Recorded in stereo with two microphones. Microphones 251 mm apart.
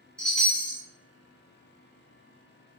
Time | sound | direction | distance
0.2 | a chime | 5° left (ahead or behind) | 1.4 m